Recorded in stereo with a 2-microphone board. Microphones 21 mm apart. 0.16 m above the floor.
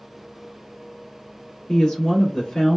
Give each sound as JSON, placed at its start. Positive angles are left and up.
{"t": 1.7, "sound": "a woman speaking", "side_deg": 30, "distance_m": 1.1}